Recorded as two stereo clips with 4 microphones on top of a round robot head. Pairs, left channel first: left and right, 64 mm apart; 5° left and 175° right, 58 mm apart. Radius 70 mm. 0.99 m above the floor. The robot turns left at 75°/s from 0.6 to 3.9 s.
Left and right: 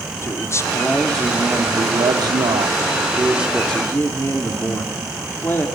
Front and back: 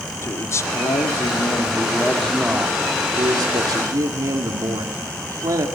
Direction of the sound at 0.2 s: 45° left.